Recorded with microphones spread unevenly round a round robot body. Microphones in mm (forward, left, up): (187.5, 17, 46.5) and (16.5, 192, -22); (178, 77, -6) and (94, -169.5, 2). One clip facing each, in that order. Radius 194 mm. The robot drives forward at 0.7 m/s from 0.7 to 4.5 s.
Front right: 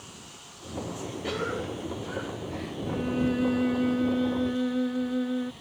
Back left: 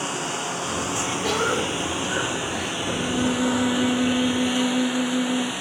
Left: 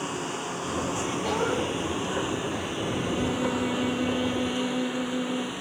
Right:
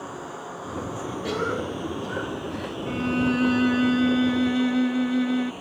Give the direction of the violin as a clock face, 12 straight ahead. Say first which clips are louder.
Back left 3 dB, right 6 dB; 4 o'clock.